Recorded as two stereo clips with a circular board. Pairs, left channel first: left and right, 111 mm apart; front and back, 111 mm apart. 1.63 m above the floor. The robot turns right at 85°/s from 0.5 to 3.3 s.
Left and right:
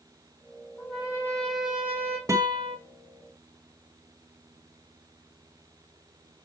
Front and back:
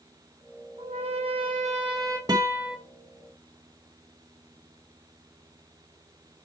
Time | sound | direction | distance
0.8 | a trumpet | 165° left | 2.5 m
2.3 | a guitar | 140° right | 1.3 m